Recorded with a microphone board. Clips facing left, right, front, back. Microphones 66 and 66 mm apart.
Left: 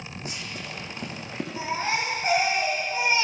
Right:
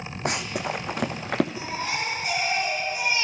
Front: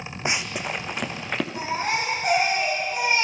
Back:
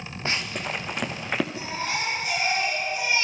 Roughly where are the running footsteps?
Right.